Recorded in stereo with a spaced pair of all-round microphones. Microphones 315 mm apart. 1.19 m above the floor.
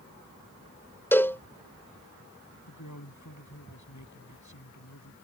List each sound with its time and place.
1.1 s a cowbell: 5° left (ahead or behind)
2.7 s a man speaking: 65° left (ahead or behind)